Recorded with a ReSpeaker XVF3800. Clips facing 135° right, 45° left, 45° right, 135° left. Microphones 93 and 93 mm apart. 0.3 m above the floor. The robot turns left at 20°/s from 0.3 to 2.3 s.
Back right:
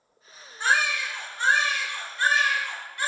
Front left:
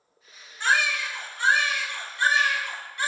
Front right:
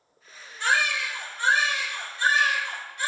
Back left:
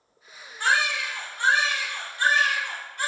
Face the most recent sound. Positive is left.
turn(degrees=115)